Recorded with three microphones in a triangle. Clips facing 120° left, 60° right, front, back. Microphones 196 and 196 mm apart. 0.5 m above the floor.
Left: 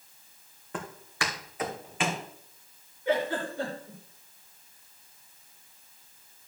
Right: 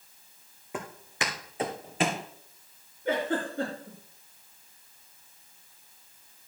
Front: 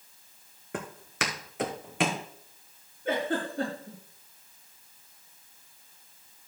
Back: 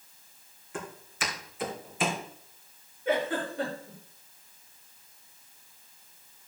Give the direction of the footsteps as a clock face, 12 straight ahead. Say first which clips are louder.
Right 1 dB, front 3 dB; 11 o'clock.